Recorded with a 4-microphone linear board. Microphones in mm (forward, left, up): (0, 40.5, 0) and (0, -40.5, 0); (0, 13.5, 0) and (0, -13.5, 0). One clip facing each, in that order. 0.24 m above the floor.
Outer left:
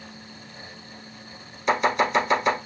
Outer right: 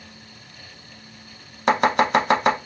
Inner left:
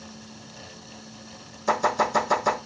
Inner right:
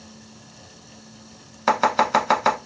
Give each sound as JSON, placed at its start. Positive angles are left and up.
{"t": 1.7, "sound": "chopping", "side_deg": -65, "distance_m": 0.7}